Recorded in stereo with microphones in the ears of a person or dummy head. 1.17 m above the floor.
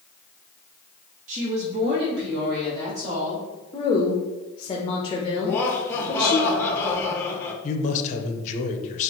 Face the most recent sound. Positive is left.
turn(degrees=35)  # may be behind; listen again after turning